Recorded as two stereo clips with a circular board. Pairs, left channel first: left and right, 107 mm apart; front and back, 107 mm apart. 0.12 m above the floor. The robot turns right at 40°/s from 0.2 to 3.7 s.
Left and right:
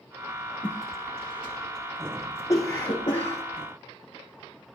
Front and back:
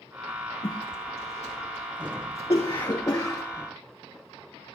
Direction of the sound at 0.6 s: 40° right.